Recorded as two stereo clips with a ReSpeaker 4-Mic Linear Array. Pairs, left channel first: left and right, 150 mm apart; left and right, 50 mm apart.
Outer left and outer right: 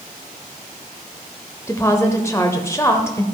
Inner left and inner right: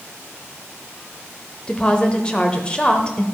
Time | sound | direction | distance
1.7 | a woman speaking | 20° left (ahead or behind) | 0.9 m